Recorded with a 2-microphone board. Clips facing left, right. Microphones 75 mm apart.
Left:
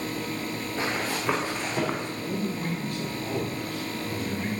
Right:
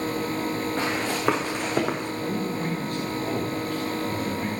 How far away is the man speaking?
About 2 m.